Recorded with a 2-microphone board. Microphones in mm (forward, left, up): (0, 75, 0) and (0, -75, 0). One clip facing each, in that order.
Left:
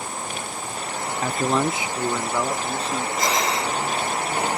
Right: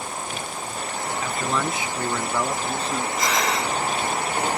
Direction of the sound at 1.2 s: 45° left (ahead or behind).